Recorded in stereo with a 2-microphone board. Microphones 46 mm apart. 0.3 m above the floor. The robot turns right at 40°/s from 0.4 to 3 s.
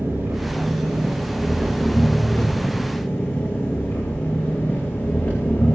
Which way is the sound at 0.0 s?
50° right.